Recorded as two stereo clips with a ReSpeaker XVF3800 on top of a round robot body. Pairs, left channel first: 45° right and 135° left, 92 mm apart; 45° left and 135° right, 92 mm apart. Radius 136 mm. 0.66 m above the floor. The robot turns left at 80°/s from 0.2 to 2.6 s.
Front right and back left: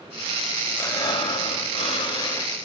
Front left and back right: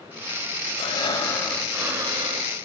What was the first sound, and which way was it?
Breathing, 20° left.